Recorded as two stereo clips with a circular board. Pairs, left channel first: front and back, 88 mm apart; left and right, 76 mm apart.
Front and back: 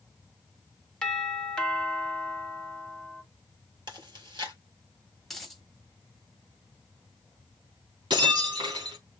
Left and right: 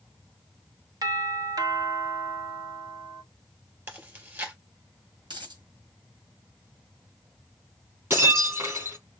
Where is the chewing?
150° right, 2.5 m.